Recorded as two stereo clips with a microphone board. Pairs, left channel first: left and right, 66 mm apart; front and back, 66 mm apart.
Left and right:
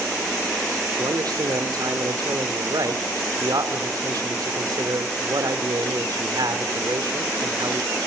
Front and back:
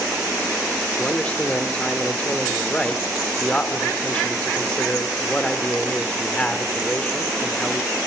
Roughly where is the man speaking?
Right.